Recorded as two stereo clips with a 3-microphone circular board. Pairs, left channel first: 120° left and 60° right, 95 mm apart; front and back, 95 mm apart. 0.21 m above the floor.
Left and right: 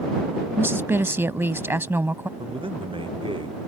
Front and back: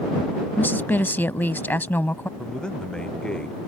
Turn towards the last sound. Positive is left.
turn(degrees=-80)